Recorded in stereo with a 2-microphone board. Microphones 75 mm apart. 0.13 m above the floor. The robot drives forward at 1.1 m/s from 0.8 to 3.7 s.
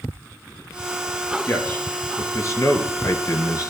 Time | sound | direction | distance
1.5 | a man speaking | 30° left (ahead or behind) | 3.5 m